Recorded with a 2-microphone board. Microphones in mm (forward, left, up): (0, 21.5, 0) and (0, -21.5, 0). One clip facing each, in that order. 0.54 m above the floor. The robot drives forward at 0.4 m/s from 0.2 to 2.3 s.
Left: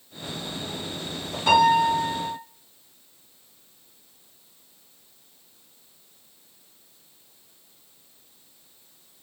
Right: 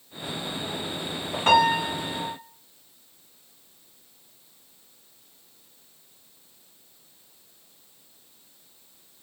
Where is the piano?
45° right (ahead or behind), 1.1 m.